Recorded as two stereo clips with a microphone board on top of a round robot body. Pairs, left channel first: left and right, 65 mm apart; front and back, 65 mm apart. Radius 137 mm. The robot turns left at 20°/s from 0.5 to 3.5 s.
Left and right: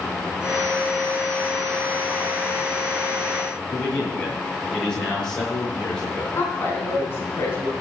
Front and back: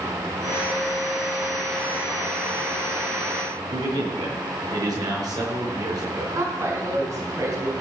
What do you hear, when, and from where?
3.7 s a man speaking: 170° left, 6.5 m
6.3 s a woman speaking: 145° left, 4.5 m